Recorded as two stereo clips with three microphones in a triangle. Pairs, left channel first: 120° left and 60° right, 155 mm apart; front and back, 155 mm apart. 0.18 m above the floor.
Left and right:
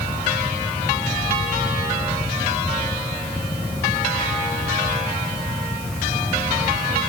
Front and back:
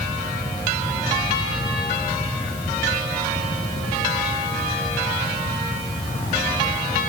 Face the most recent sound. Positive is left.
No sound to turn to.